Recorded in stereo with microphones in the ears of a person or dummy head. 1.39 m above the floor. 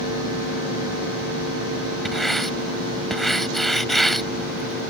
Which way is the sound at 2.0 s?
5° left (ahead or behind).